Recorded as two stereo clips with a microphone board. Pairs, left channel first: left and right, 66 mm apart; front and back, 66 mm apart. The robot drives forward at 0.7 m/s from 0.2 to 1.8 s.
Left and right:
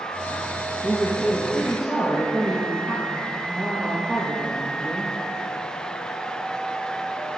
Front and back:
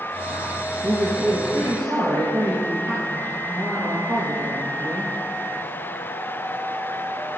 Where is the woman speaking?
150° left, 2.5 m; by 5.1 s 155° left, 3 m.